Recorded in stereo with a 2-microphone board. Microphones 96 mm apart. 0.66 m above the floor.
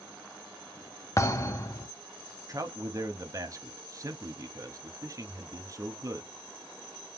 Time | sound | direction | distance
1.2 | a thud | 35° left (ahead or behind) | 0.5 m
2.5 | a man speaking | 35° right (ahead or behind) | 0.7 m